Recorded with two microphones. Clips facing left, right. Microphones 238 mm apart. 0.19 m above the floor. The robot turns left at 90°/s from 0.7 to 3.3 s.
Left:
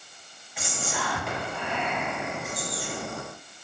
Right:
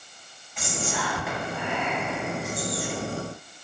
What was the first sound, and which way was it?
Whispering, 10° left (ahead or behind).